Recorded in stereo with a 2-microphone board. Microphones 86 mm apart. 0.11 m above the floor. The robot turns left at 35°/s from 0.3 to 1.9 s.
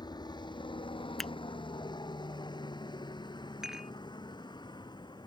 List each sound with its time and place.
0.0 s a helicopter: 55° left (ahead or behind)
1.2 s a finger snap: 5° left (ahead or behind)
3.6 s dishes clattering: 5° right (ahead or behind)